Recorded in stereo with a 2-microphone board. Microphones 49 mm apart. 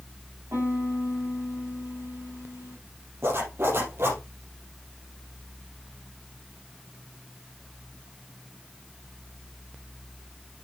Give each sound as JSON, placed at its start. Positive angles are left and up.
{"t": 0.5, "sound": "a piano", "side_deg": -60, "distance_m": 6.0}
{"t": 3.2, "sound": "a zipper", "side_deg": -55, "distance_m": 4.0}